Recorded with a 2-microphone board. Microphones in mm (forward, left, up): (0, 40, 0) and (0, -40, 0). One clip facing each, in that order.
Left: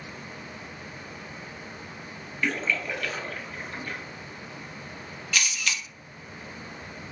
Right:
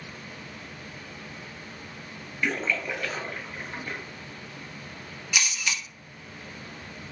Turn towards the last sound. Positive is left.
turn(degrees=-15)  # may be behind; listen again after turning